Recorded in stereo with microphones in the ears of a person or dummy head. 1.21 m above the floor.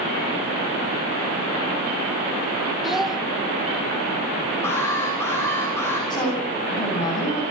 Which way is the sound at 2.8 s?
Centre (ahead or behind).